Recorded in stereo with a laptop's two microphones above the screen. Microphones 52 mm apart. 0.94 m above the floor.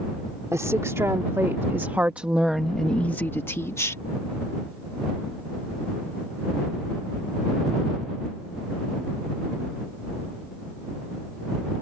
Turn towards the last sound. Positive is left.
turn(degrees=60)  # may be behind; listen again after turning